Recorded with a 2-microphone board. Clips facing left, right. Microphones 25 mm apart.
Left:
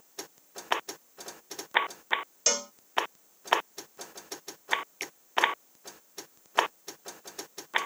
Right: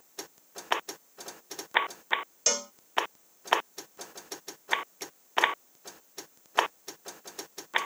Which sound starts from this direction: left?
A finger snap, at 5.0 s.